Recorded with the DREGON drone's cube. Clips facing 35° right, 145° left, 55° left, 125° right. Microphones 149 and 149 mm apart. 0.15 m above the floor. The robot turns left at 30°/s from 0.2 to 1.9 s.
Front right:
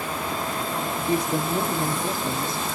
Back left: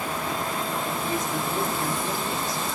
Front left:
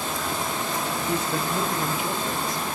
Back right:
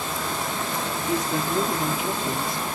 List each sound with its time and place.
1.1 s a woman speaking: 55° right, 1.3 m; by 2.7 s 80° right, 1.3 m